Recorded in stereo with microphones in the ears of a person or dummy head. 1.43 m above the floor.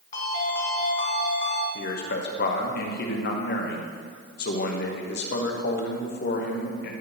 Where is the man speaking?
50° left (ahead or behind), 0.8 m.